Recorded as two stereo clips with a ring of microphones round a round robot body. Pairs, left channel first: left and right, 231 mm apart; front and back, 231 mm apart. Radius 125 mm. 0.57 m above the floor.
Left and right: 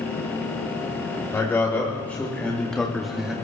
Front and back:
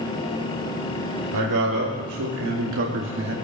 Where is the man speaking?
170° left, 2.5 m; by 3.4 s 175° right, 1.3 m.